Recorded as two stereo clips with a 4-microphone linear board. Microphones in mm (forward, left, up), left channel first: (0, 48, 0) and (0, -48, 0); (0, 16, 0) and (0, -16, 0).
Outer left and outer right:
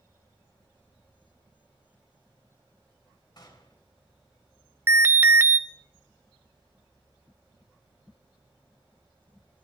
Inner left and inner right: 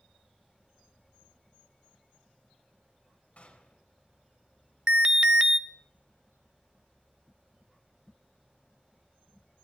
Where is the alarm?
25° right (ahead or behind), 0.8 m.